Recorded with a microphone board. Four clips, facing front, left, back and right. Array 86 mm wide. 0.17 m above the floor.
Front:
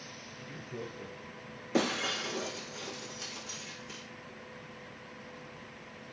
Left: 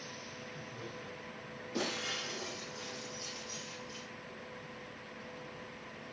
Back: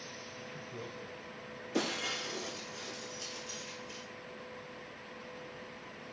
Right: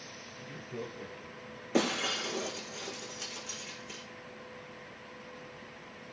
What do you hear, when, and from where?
0.4 s laughter: 50° right, 3.5 m; by 1.6 s 75° right, 3 m
1.7 s breaking glass: 50° right, 5.5 m